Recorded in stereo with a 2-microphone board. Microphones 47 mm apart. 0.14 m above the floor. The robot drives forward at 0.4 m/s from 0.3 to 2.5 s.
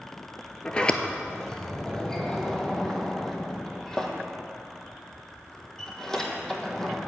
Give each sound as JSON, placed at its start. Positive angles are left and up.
{"t": 0.7, "sound": "a sliding door", "side_deg": 25, "distance_m": 0.5}